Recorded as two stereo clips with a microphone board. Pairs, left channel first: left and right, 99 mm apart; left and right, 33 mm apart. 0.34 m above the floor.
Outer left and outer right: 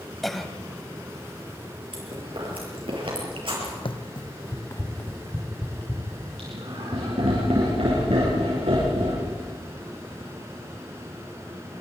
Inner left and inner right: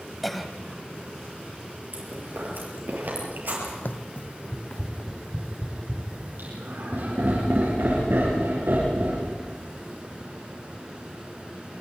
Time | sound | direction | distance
0.2 | a cough | centre (ahead or behind) | 2.0 m
1.9 | chewing | 60° right (ahead or behind) | 7 m
3.9 | running footsteps | 60° left (ahead or behind) | 1.1 m
6.4 | laughter | 80° right | 7.5 m